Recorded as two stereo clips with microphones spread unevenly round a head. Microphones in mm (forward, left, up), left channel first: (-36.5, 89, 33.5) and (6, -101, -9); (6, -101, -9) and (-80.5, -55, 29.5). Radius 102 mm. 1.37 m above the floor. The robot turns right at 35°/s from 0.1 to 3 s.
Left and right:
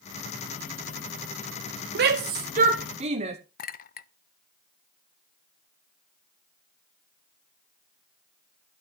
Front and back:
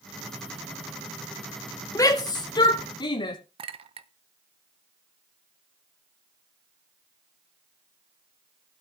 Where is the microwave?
No microwave in this recording.